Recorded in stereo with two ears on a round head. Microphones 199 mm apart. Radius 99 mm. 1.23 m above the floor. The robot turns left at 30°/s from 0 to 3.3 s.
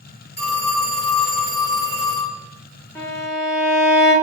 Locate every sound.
0.4 s a phone ringing: 135° left, 1.7 m; by 2.4 s 75° left, 1.7 m
3.0 s a violin: 10° left (ahead or behind), 0.8 m; by 4.1 s centre (ahead or behind), 0.8 m